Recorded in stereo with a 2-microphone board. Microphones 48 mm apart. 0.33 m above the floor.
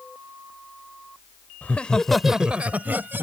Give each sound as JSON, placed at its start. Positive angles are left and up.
{"t": 1.6, "sound": "laughter", "side_deg": 35}